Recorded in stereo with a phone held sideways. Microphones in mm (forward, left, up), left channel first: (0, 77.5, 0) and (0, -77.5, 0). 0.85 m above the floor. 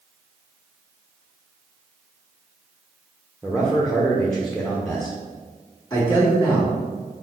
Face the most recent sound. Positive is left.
turn(degrees=25)  # may be behind; listen again after turning